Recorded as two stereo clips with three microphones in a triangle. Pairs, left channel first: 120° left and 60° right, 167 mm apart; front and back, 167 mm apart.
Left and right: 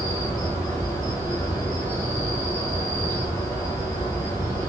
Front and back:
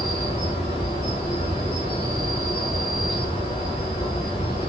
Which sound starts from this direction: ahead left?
An insect, at 0.0 s.